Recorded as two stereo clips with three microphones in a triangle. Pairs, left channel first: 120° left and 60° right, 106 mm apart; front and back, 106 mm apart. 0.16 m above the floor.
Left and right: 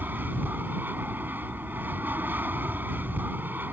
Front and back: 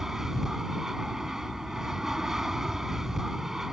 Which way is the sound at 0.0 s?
100° right.